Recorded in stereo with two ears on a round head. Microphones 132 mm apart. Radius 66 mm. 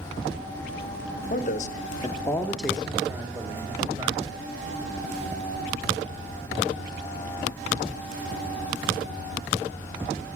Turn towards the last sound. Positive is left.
turn(degrees=-25)  # may be behind; listen again after turning